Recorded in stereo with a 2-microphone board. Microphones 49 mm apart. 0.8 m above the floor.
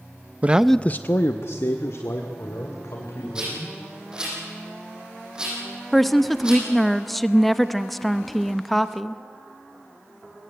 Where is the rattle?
15° right (ahead or behind), 9 m.